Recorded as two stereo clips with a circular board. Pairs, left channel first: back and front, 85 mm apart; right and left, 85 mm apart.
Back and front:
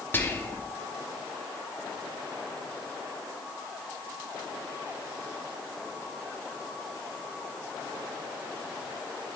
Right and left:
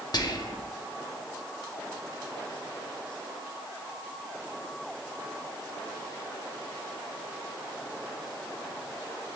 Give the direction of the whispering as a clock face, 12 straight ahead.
4 o'clock.